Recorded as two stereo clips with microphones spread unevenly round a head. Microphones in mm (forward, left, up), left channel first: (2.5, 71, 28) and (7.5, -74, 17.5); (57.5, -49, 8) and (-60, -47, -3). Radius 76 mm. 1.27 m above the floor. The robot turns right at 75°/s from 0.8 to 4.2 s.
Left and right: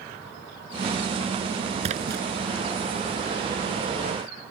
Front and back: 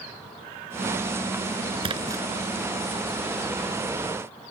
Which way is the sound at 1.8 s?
140° right.